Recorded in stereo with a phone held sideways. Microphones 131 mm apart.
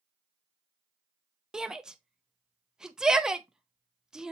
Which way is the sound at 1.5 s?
5° right (ahead or behind).